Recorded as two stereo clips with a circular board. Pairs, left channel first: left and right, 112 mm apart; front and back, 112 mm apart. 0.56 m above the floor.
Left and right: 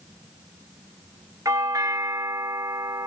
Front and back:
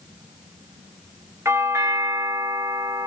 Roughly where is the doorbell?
Behind right.